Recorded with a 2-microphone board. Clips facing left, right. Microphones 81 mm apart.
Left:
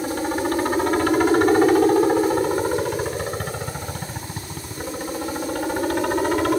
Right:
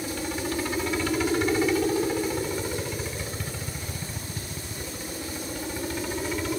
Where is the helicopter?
45° left (ahead or behind); by 6.6 s 60° left (ahead or behind).